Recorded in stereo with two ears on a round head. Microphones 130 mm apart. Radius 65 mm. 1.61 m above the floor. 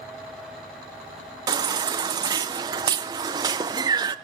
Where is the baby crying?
30° right (ahead or behind), 0.6 m.